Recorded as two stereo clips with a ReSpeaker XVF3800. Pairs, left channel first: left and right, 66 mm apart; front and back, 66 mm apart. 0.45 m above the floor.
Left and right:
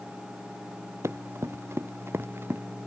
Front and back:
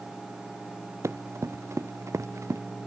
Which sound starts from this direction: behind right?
Running footsteps, at 1.0 s.